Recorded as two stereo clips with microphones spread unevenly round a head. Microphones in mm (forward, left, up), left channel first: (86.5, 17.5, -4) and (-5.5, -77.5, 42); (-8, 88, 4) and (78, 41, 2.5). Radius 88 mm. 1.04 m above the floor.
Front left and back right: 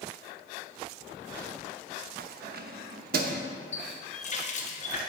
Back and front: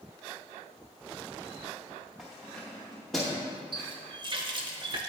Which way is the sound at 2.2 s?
120° right.